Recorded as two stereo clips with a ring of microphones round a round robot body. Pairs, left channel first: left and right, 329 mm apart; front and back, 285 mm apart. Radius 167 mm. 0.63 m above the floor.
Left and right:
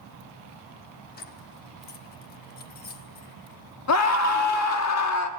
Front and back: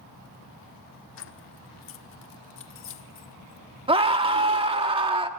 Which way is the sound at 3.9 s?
110° left.